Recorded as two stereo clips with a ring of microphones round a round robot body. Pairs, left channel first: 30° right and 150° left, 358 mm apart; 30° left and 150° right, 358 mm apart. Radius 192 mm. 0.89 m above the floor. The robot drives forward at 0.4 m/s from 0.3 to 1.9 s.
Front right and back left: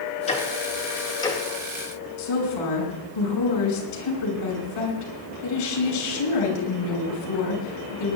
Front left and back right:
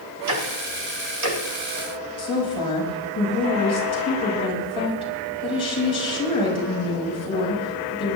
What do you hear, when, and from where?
0.3 s ticking: 105° right, 3 m; by 1.4 s 110° right, 3 m
2.2 s a woman speaking: 45° right, 6.5 m